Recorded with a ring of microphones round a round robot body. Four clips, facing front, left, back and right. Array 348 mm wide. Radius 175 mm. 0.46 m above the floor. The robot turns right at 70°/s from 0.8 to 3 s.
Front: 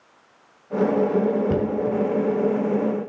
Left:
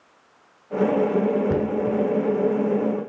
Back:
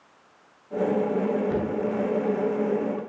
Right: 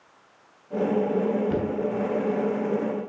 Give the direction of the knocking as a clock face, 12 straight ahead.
11 o'clock.